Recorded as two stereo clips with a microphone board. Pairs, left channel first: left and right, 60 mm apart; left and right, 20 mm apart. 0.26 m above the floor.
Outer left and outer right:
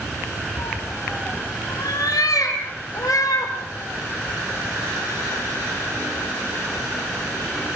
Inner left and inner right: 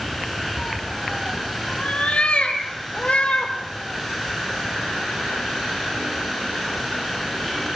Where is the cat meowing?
80° left, 3 m; by 3.5 s 75° left (ahead or behind), 4.5 m.